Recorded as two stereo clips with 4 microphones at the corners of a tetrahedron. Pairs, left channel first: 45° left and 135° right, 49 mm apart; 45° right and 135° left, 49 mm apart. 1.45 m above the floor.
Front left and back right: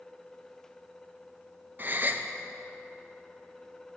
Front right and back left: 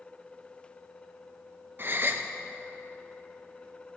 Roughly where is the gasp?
Behind.